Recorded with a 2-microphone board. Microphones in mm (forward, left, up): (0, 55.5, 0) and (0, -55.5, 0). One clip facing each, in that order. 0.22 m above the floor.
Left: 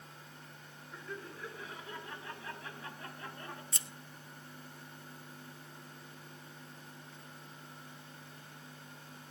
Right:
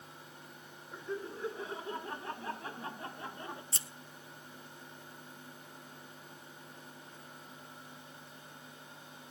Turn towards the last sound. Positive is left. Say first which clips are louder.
# even
turn(degrees=-30)  # may be behind; listen again after turning